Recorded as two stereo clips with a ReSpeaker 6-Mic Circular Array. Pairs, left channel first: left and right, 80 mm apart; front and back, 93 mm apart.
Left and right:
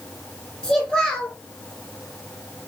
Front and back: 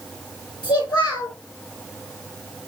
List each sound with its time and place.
0.6 s a child speaking: 15° left, 1.8 m